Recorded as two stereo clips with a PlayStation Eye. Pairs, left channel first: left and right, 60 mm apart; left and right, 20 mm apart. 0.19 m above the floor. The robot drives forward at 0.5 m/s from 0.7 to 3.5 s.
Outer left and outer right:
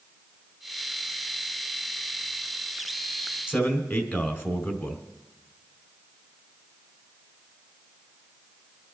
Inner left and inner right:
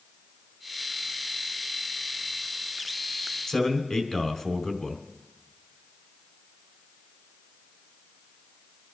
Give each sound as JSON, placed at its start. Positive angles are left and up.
{"t": 3.5, "sound": "a man speaking", "side_deg": 35, "distance_m": 1.7}